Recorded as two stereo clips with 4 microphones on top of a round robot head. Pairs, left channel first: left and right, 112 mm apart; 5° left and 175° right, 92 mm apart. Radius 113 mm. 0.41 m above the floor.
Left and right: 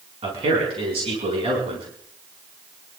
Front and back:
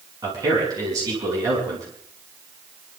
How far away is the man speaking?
About 5.5 m.